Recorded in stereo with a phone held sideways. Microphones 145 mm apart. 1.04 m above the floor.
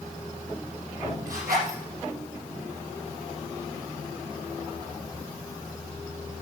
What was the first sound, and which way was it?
A zipper, 75° right (ahead or behind).